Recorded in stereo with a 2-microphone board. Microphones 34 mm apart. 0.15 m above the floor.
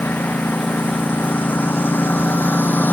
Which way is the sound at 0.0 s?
85° left.